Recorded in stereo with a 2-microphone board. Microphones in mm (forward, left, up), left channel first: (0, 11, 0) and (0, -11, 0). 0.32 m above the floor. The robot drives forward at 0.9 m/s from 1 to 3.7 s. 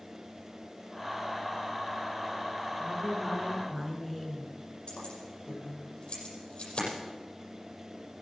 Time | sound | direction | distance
2.8 | a woman speaking | centre (ahead or behind) | 3 m
4.9 | keys jangling | 65° left (ahead or behind) | 6.5 m